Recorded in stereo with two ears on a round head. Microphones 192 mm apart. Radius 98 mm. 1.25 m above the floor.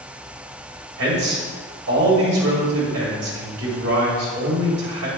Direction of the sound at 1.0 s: 70° right (ahead or behind).